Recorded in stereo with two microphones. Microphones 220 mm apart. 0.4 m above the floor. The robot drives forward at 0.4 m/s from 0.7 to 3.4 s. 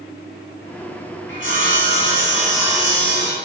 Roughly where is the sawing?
Left.